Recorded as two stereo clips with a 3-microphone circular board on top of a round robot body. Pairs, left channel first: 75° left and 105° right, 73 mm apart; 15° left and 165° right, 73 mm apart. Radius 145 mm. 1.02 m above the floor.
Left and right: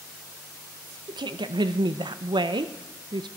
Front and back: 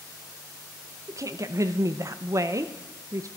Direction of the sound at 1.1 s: 120° right.